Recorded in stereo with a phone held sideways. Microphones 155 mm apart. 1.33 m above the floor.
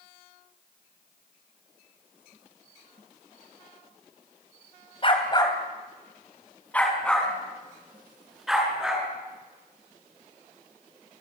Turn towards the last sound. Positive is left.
turn(degrees=-5)  # may be behind; listen again after turning